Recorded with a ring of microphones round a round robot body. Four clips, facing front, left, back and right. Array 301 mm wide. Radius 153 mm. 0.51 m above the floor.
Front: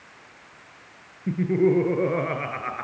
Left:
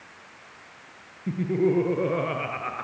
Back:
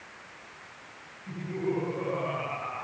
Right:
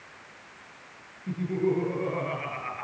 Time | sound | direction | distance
1.3 | laughter | 30° left | 7 m